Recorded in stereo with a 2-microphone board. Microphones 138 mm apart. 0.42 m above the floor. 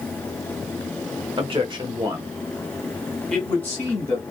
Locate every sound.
1.4 s a man speaking: 40° right (ahead or behind), 1.1 m; by 4.2 s 20° left (ahead or behind), 1.5 m